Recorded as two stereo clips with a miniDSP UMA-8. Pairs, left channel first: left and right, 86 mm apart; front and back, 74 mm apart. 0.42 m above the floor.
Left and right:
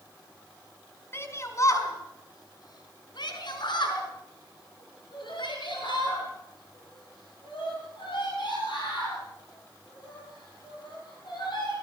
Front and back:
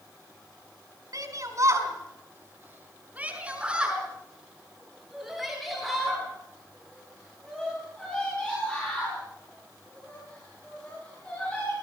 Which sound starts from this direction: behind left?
A shout, at 1.1 s.